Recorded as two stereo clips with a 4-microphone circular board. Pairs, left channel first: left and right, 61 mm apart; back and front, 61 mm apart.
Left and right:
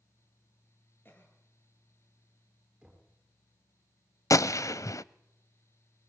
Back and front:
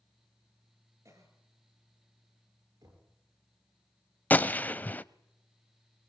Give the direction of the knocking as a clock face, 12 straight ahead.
12 o'clock.